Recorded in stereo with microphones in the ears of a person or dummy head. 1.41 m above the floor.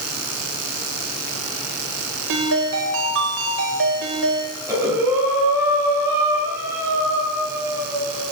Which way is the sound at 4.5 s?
15° right (ahead or behind).